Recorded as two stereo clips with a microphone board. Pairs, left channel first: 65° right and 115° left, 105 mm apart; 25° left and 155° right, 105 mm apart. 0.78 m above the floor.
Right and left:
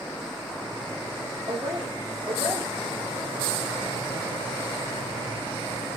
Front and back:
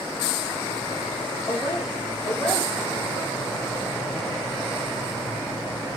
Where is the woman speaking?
75° left, 2.5 m.